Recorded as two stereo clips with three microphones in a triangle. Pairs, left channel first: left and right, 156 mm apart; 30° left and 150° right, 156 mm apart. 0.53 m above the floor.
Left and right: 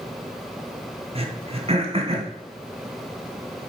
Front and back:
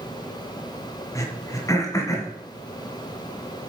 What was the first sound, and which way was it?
Throat clearing, 40° right.